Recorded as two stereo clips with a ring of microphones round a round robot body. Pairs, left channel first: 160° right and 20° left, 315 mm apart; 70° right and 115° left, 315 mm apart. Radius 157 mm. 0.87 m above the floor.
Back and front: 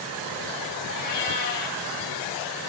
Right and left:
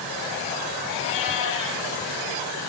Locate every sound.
0.9 s a cat meowing: 120° right, 5 m